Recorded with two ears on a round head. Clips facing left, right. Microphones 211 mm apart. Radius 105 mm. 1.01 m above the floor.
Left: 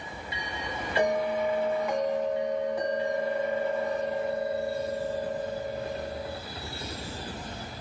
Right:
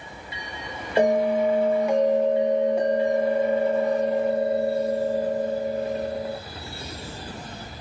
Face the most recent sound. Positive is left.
turn(degrees=-25)  # may be behind; listen again after turning